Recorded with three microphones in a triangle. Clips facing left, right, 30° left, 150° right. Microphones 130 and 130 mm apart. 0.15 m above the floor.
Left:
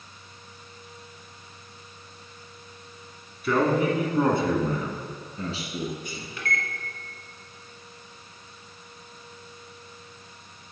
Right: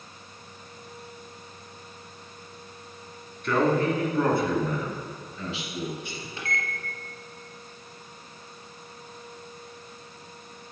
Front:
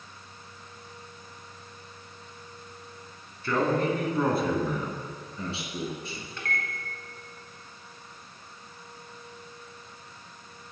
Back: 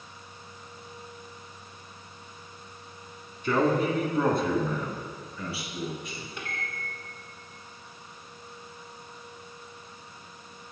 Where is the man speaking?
165° left, 1.1 m; by 6.3 s 70° left, 1.7 m.